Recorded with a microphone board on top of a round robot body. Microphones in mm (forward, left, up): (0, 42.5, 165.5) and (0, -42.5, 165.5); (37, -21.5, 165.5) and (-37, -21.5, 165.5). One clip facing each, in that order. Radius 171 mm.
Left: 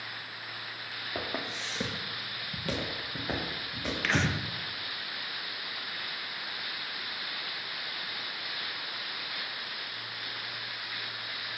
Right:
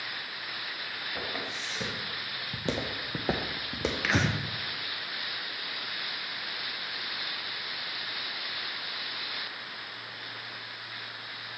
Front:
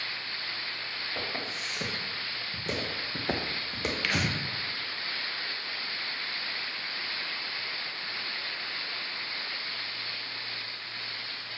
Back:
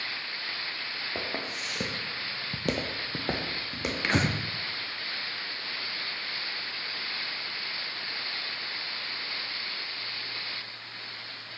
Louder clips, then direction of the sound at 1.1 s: Left 2 dB, back 1 dB; 140° left.